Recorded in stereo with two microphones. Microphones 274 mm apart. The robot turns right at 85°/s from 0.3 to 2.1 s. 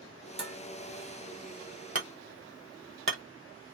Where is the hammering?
60° right (ahead or behind), 1.2 m; by 3.2 s 50° right (ahead or behind), 1.2 m.